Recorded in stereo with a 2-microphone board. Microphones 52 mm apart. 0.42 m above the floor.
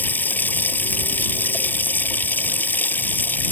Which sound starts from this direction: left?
Running water, at 0.0 s.